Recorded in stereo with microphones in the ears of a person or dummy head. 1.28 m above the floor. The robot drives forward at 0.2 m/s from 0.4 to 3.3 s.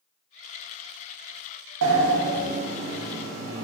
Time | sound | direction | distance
1.8 | a sliding door | 70° right (ahead or behind) | 0.7 m